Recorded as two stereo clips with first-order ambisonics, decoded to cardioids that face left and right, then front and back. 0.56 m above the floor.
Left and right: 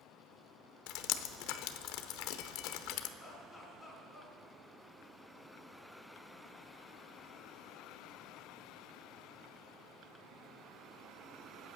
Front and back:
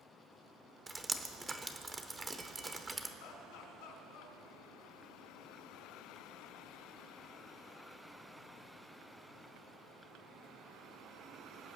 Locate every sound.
0.9 s dripping: 100° left, 0.8 m
3.2 s laughter: 10° left, 4.5 m